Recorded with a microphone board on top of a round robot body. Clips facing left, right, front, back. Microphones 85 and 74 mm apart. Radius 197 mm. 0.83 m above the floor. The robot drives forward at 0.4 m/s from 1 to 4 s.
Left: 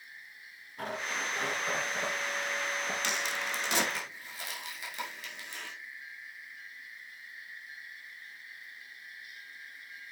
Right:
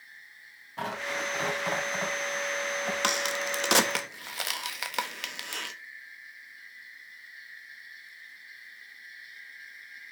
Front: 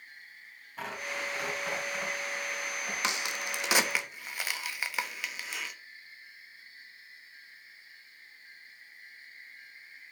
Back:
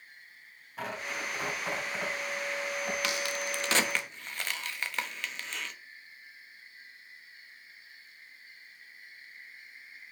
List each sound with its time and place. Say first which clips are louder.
0.8 s tearing paper: right 3 dB, even; 95° right, 3 m; by 2.9 s 105° right, 3.5 m
3.0 s a crack: right 4 dB, back 1 dB; 65° right, 1.4 m; by 5.8 s 80° right, 1.3 m